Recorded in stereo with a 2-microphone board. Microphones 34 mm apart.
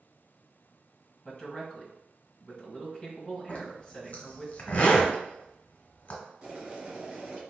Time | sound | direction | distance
1.2 | a man speaking | 20° left (ahead or behind) | 1.7 m
3.5 | a zipper | 40° left (ahead or behind) | 1.2 m
6.4 | boiling | 25° right (ahead or behind) | 1.6 m